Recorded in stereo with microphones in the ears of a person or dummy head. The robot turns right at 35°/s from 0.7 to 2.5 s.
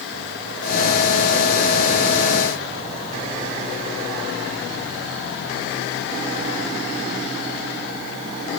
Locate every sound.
Only background noise.